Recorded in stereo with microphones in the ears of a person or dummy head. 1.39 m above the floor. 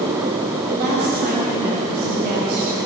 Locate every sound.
0.7 s a woman speaking: 50° right (ahead or behind), 6.5 m